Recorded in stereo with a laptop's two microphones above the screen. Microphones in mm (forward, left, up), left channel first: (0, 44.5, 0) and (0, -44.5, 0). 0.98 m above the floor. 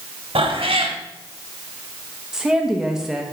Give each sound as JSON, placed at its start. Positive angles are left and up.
{"t": 0.3, "sound": "a cat meowing", "side_deg": -70, "distance_m": 1.1}
{"t": 2.3, "sound": "a woman speaking", "side_deg": -5, "distance_m": 1.0}